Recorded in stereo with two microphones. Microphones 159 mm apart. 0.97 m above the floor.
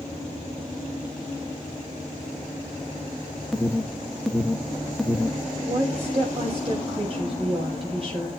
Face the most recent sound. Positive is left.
turn(degrees=-40)  # may be behind; listen again after turning